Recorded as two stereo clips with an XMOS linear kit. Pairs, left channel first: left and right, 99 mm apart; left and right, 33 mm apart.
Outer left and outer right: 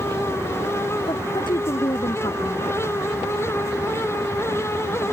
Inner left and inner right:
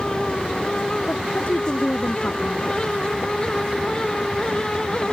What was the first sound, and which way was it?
A woman speaking, 55° left (ahead or behind).